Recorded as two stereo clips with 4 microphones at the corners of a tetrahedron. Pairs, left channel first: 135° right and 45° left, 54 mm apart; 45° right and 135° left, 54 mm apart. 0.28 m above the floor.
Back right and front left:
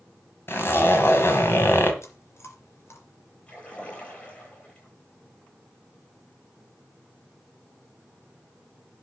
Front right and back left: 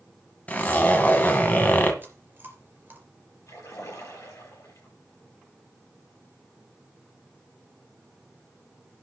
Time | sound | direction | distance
0.5 | a zipper | 100° right | 2.5 m
2.0 | chewing | 170° right | 3 m
3.5 | a splash | 65° right | 8 m